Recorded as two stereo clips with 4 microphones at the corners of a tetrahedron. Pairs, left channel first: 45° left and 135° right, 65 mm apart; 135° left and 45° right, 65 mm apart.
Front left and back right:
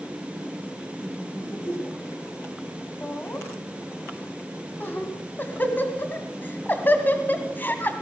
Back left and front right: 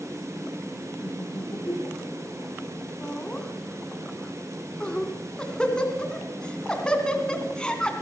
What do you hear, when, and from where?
1.0 s laughter: 90° left, 9 m; by 2.5 s 95° left, 10.5 m
3.0 s laughter: 75° left, 1.9 m